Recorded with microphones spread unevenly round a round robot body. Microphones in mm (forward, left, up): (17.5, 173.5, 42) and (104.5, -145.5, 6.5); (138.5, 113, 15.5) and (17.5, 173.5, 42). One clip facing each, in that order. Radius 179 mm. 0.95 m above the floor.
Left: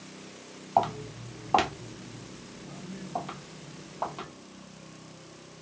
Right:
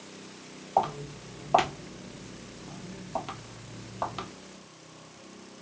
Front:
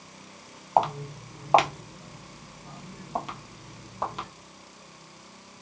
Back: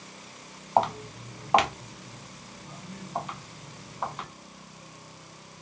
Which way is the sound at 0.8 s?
55° left.